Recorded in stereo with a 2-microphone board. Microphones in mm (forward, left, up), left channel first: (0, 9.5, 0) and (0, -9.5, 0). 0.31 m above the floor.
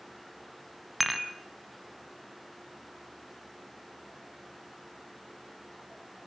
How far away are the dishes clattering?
About 1.3 m.